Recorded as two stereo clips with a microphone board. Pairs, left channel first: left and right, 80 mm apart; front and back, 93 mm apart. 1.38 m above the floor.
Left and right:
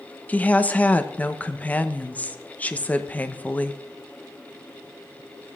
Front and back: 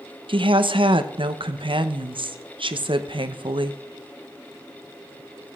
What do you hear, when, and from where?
0.3 s a woman speaking: 160° left, 0.9 m